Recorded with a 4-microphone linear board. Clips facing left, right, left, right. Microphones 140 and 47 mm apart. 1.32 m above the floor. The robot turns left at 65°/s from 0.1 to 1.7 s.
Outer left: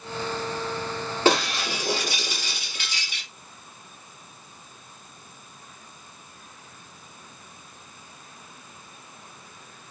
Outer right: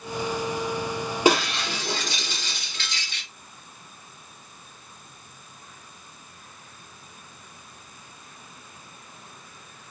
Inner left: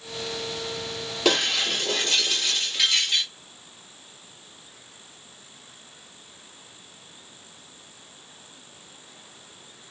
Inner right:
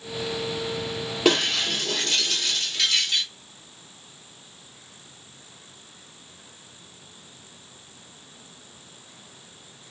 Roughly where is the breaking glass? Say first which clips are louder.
Outer right 1 dB, inner right 1 dB; centre.